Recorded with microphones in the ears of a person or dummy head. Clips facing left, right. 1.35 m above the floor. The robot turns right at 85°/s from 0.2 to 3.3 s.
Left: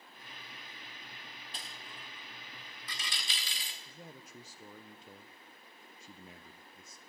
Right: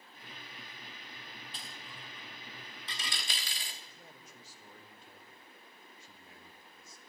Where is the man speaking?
70° left (ahead or behind), 0.8 m.